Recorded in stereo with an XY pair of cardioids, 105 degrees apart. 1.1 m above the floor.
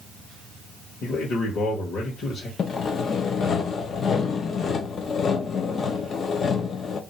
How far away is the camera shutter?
No camera shutter in this recording.